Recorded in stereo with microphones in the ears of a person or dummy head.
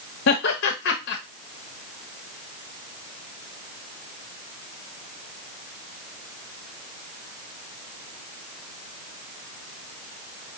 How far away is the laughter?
About 0.6 m.